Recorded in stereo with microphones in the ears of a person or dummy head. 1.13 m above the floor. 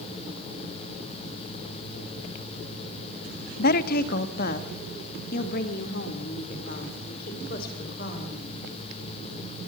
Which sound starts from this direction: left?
A woman speaking, at 3.6 s.